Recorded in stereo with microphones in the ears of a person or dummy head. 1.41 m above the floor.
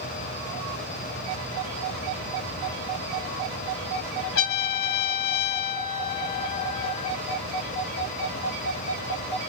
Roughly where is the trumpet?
Left.